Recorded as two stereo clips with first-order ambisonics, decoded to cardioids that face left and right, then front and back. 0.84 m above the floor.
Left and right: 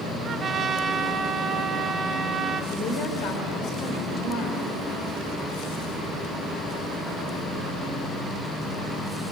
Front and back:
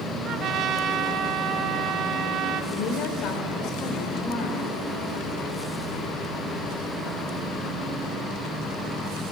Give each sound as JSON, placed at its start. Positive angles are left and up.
{"t": 0.2, "sound": "a trumpet", "azimuth_deg": -145, "distance_m": 0.9}
{"t": 2.7, "sound": "a woman speaking", "azimuth_deg": 45, "distance_m": 3.5}